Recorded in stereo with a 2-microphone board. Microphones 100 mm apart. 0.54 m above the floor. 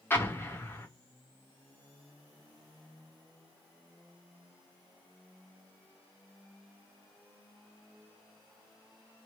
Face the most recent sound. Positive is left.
turn(degrees=20)  # may be behind; listen again after turning